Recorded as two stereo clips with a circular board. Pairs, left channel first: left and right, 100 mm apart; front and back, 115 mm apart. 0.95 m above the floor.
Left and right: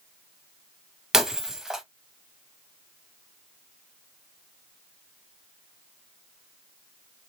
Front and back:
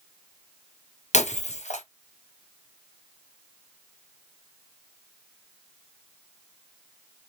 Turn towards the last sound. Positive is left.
turn(degrees=-5)